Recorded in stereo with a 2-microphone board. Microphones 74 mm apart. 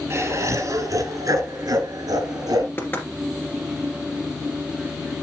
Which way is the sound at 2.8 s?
25° left (ahead or behind).